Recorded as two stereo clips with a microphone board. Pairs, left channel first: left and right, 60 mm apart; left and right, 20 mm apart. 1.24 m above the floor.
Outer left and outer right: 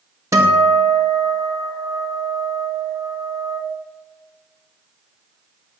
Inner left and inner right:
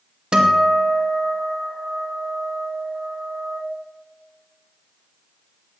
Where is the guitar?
55° right (ahead or behind), 2.0 m.